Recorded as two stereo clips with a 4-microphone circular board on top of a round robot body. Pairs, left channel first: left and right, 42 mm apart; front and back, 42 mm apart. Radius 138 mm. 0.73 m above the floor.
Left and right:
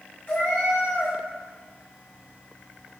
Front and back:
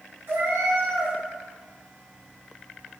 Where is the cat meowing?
145° left, 2 m.